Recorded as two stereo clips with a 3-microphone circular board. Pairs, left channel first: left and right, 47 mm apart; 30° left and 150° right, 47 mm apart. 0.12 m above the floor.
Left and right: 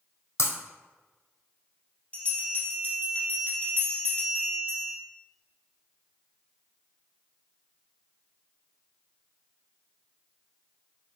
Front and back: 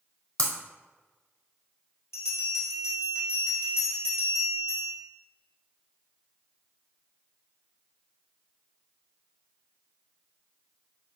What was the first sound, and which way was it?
Breaking glass, 95° left.